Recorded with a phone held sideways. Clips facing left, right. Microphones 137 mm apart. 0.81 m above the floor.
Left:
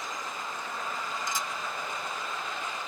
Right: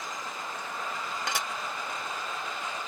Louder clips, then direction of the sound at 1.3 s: Right 3 dB; 70° right (ahead or behind).